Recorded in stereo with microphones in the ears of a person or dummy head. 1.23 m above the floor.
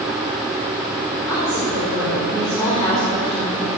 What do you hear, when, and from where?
1.3 s a woman speaking: 10° left (ahead or behind), 5 m